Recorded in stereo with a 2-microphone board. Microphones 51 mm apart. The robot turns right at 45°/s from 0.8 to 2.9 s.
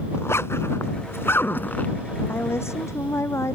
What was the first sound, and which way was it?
A zipper, 65° left (ahead or behind).